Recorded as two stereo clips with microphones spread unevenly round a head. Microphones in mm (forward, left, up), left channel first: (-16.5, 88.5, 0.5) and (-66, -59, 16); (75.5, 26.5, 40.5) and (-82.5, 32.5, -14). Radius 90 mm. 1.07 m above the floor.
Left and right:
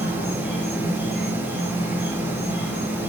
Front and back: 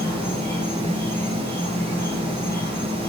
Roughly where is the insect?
Left.